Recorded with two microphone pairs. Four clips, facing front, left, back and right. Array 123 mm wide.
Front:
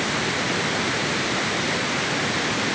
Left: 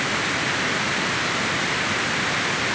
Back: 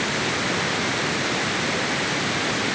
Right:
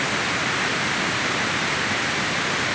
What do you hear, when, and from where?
Only background noise.